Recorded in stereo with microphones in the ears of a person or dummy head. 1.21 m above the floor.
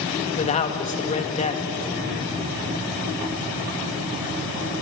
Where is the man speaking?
35° left (ahead or behind), 1.9 m.